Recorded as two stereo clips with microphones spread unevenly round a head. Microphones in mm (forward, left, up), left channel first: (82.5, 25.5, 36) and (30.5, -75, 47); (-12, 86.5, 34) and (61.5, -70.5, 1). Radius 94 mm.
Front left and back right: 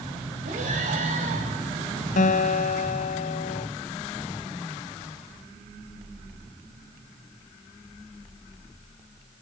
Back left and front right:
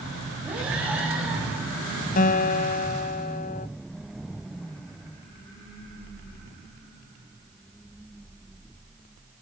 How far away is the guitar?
About 1.0 m.